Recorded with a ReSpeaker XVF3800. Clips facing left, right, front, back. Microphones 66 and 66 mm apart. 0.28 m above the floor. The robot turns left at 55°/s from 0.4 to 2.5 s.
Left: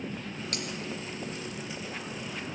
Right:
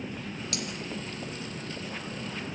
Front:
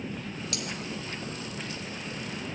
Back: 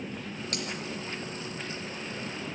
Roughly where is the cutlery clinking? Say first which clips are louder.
Right 1 dB, back 2 dB; behind left.